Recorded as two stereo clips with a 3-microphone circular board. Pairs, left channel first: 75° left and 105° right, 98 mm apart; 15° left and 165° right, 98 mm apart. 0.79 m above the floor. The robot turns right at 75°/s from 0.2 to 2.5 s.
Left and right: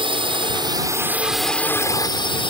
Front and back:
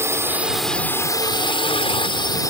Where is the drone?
105° right; by 2.5 s 65° left.